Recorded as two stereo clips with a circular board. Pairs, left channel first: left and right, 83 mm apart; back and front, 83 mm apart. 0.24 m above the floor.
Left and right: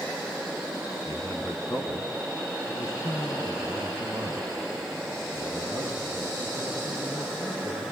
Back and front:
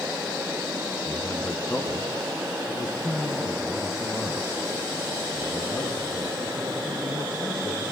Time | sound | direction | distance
1.1 | a man speaking | 135° left | 2 m